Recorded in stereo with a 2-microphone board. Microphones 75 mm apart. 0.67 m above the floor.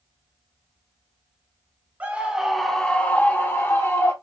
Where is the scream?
25° right (ahead or behind), 0.9 m; by 4.1 s 40° left (ahead or behind), 1.5 m.